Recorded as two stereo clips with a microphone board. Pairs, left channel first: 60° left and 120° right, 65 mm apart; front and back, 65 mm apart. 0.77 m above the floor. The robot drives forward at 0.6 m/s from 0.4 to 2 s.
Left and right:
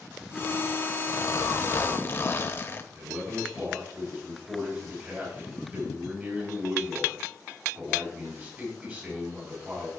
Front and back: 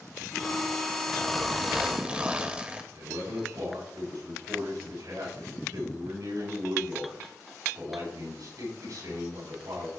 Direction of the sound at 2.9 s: Straight behind.